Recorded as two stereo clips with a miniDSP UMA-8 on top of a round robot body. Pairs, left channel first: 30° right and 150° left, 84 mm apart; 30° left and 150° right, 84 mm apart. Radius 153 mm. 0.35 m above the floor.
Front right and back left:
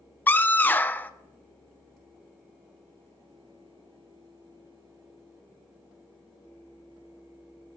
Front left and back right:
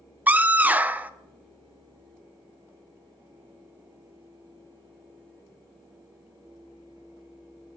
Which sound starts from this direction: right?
A scream, at 0.3 s.